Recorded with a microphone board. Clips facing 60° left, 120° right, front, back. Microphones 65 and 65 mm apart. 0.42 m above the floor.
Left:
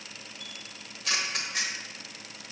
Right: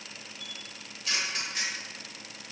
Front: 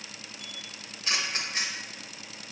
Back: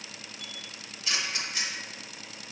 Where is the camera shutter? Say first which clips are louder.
Even, even; 45° left, 0.7 m.